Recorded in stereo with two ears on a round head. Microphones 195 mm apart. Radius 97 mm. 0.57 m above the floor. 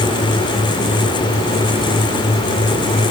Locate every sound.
Only background noise.